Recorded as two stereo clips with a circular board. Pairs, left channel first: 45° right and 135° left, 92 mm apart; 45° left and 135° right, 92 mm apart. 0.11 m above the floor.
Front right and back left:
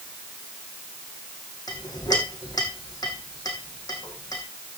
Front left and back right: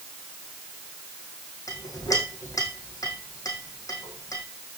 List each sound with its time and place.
1.7 s a clink: straight ahead, 4 m